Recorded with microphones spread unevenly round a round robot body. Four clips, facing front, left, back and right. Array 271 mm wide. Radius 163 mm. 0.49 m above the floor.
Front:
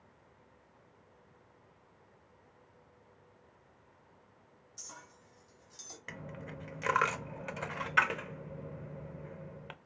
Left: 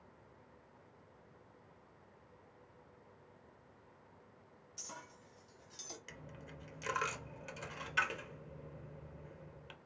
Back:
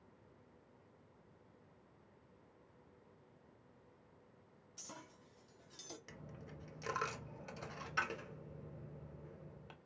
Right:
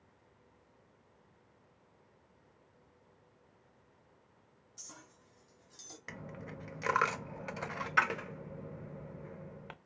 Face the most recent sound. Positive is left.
turn(degrees=-35)